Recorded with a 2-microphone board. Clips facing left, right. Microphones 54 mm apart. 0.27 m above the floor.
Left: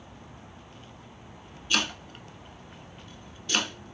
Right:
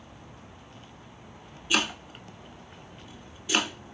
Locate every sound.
1.7 s chopping: 15° right (ahead or behind), 0.5 m